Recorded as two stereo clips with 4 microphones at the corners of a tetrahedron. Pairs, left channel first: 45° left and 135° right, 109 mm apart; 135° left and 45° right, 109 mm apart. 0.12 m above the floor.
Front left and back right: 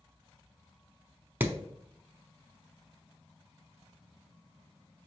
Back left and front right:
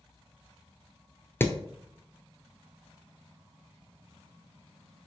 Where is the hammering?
170° left, 0.6 m.